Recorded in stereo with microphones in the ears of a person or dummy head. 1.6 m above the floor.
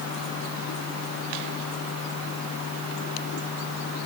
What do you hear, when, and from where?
Only background noise.